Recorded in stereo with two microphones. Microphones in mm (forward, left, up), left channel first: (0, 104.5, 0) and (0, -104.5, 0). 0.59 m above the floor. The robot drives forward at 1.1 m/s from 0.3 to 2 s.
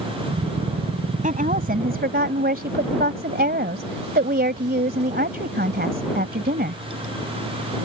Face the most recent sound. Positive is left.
turn(degrees=-50)  # may be behind; listen again after turning